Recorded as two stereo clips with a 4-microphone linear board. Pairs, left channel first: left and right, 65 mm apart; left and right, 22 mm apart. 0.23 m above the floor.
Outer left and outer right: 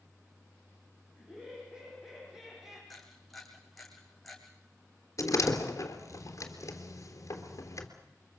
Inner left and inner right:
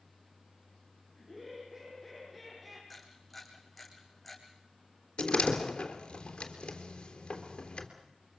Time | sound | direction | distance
1.2 | laughter | 10° right (ahead or behind) | 9.5 m
2.9 | a camera shutter | 5° left (ahead or behind) | 5 m
5.2 | a door slam | 50° left (ahead or behind) | 3 m